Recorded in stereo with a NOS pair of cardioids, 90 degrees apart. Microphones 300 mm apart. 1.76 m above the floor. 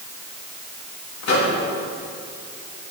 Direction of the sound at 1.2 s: 60° left.